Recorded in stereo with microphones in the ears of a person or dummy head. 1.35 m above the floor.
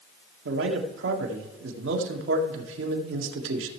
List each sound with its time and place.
0.5 s a man speaking: 80° right, 1.5 m